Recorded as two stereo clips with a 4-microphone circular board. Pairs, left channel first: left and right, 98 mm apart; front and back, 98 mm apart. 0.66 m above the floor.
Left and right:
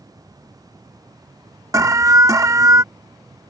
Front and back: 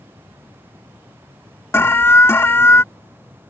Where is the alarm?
55° right.